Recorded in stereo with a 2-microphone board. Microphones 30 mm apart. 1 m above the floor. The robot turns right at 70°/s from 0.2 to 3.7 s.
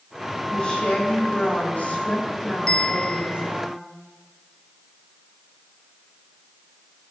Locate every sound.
0.5 s a woman speaking: 25° left, 7.5 m; by 3.7 s 115° right, 7.5 m
2.7 s a bell: 25° left, 1.4 m; by 3.5 s 85° left, 1.4 m